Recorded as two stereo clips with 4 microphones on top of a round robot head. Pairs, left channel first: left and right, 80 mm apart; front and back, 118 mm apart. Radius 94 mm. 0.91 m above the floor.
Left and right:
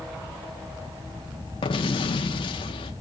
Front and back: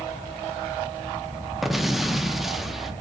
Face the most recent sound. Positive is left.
turn(degrees=95)